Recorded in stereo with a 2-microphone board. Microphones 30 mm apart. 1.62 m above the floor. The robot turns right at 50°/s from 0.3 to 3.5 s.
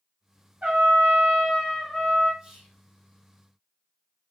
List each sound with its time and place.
0.6 s a trumpet: 70° right, 1.5 m; by 2.3 s 15° left, 1.5 m
2.4 s whispering: 30° right (ahead or behind), 1.7 m; by 2.8 s 10° right (ahead or behind), 1.7 m